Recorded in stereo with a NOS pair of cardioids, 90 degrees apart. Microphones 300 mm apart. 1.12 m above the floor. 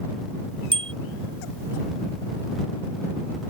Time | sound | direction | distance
0.7 | a bicycle bell | 15° right | ?